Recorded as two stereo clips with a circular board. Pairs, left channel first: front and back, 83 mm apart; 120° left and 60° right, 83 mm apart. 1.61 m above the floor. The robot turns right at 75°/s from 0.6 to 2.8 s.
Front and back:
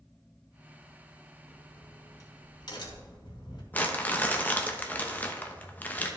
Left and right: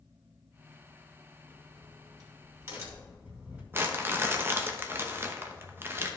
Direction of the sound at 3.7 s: 45° right.